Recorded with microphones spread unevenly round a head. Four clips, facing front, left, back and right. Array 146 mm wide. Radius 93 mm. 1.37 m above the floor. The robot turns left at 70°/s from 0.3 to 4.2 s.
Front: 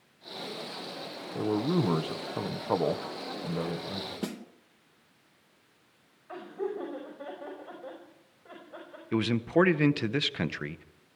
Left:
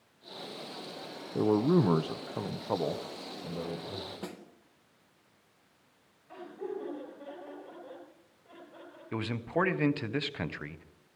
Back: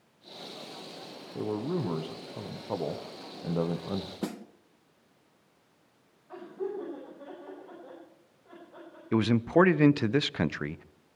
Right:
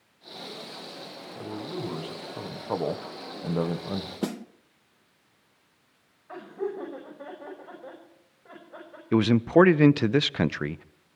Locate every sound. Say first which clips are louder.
1.4 s a man speaking: left 10 dB, front 4 dB; 75° left, 1.1 m; by 4.1 s 120° right, 1.1 m
4.2 s a snare drum: right 11 dB, back 1 dB; 95° right, 0.9 m
6.3 s laughter: right 6 dB, front 1 dB; 45° right, 6 m
9.1 s a man speaking: right 13 dB, back 2 dB; 95° right, 0.7 m